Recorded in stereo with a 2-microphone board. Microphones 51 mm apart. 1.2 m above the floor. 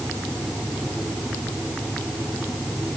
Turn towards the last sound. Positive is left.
No sound to turn to.